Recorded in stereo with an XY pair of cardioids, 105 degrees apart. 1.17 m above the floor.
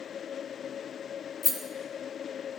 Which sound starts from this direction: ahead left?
A rattle, at 1.4 s.